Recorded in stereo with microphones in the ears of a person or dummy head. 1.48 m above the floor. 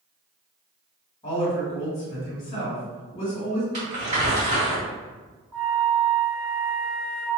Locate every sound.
1.2 s a woman speaking: 25° left (ahead or behind), 1.9 m
3.7 s crumpling: 45° right (ahead or behind), 1.9 m
5.5 s a flute: 75° right (ahead or behind), 1.4 m